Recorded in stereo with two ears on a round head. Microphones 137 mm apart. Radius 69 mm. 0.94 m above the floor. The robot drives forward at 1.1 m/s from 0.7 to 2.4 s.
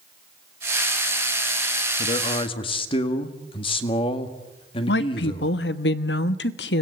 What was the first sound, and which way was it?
A man speaking, 45° left (ahead or behind).